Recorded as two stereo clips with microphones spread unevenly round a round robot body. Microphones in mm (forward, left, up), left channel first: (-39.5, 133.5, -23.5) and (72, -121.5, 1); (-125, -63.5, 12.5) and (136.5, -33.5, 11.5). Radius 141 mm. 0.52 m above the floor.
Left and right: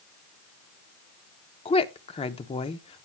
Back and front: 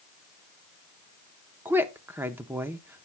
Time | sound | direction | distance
1.6 | a woman speaking | 80° left | 0.7 m